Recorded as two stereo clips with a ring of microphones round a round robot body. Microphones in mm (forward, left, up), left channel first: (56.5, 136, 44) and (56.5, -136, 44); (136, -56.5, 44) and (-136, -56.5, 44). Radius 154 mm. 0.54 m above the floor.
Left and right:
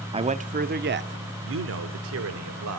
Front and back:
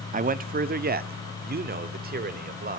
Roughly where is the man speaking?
Behind right.